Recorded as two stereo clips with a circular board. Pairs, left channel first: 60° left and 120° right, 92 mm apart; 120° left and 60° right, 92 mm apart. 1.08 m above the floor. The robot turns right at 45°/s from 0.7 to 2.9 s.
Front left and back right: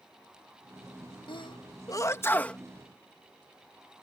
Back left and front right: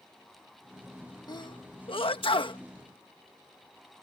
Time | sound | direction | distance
1.3 | a sneeze | 80° left | ?